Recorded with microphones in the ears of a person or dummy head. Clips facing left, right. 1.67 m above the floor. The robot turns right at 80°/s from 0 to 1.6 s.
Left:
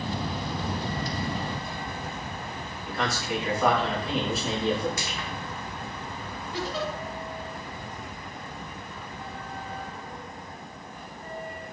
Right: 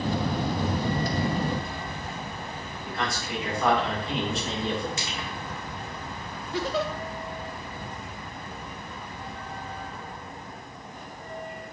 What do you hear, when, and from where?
2.9 s a man speaking: 5° left (ahead or behind), 1.5 m
5.0 s crushing: 20° right (ahead or behind), 0.7 m
6.5 s a giggle: 50° right (ahead or behind), 0.5 m